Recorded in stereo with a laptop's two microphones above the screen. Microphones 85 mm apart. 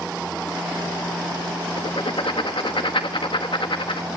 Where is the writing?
75° left (ahead or behind), 1.2 m.